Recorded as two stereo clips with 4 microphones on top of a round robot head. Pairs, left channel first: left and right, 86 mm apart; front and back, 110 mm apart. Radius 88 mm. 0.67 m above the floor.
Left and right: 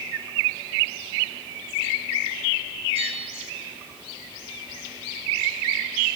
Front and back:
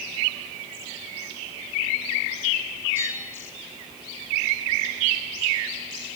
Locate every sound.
3.0 s a bell: 110° right, 3.5 m